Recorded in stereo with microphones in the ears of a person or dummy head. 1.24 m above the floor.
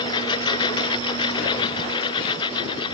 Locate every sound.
0.0 s a lawn mower: 25° left (ahead or behind)